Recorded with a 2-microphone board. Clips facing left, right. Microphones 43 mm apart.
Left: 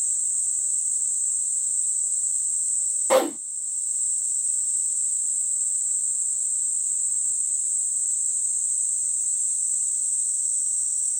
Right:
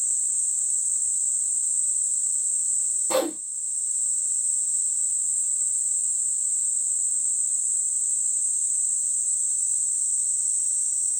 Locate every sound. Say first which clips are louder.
3.1 s a whoosh: left 5 dB; 55° left (ahead or behind), 1.0 m